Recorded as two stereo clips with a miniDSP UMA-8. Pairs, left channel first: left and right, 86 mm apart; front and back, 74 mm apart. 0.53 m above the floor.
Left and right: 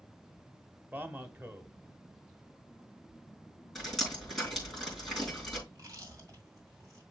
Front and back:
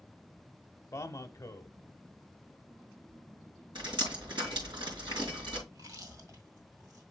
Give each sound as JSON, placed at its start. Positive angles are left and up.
{"t": 0.9, "sound": "a man speaking", "azimuth_deg": -30, "distance_m": 0.9}
{"t": 3.8, "sound": "dripping", "azimuth_deg": 180, "distance_m": 5.5}
{"t": 5.7, "sound": "chewing", "azimuth_deg": -140, "distance_m": 2.0}